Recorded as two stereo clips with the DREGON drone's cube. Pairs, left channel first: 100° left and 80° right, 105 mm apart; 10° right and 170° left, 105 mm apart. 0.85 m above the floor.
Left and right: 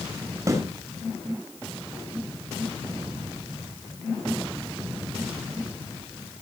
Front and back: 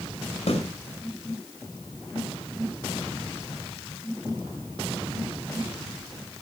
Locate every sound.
0.5 s a snare drum: 20° right, 5.5 m